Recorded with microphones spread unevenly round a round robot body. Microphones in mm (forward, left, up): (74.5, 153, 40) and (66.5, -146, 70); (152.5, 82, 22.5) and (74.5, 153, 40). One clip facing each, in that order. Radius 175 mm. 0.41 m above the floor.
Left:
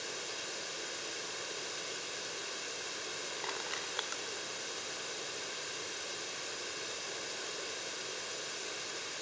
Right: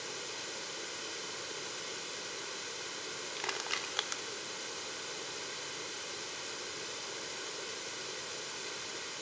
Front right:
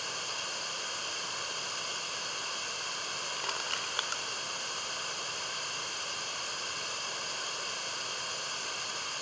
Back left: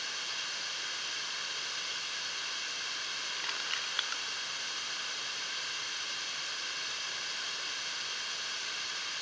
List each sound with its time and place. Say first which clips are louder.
0.0 s running water: even, front right 4 dB; 5° right, 1.3 m
3.4 s crushing: even, front right 4 dB; 60° right, 1.2 m